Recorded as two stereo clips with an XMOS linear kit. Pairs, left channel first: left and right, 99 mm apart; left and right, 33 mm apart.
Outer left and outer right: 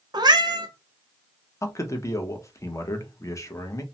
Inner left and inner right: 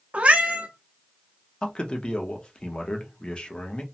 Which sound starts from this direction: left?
A man speaking, at 1.6 s.